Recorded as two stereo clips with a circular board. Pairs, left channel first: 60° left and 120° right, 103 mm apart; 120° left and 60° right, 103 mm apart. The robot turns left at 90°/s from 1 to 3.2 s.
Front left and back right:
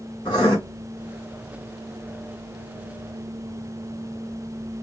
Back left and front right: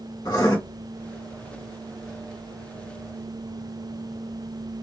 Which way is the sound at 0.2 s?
90° left.